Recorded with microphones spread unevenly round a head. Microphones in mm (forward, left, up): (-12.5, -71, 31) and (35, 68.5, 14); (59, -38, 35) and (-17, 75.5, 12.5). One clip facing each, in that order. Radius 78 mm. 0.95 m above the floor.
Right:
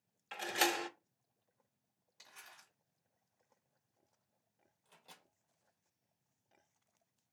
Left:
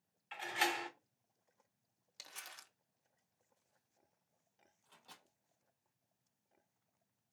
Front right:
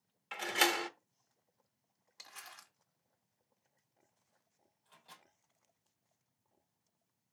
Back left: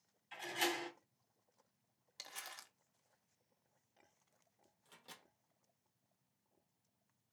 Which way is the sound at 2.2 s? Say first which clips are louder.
Left 4 dB, back left 1 dB; 65° left.